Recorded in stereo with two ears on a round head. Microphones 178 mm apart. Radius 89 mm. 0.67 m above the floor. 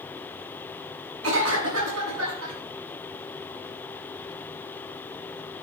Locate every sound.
1.2 s a cough: 80° right, 5.5 m